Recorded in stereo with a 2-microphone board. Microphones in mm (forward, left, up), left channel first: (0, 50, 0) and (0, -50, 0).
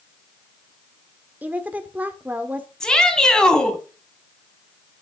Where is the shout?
10° left (ahead or behind), 3 m.